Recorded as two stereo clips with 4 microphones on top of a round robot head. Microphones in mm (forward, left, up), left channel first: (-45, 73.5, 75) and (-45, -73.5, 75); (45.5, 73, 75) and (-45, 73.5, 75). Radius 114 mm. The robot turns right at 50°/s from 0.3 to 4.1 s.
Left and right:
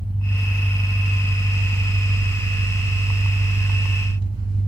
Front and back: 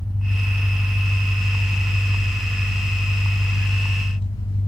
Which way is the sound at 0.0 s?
145° left.